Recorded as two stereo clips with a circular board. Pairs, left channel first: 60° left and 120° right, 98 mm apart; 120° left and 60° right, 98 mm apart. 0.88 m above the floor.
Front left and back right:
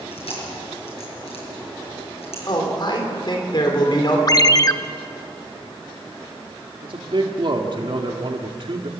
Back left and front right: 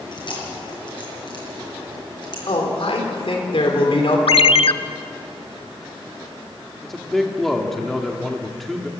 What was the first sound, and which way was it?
Chewing, 80° left.